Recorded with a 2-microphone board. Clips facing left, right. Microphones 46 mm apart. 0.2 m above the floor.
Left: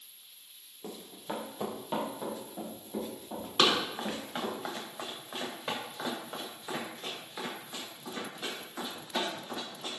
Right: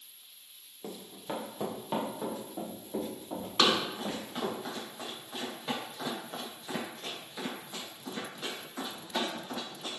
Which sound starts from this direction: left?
Running footsteps, at 3.6 s.